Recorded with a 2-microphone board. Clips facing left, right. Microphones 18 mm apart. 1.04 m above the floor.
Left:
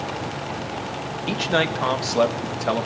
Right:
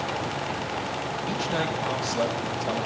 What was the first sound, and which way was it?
A man speaking, 60° left (ahead or behind).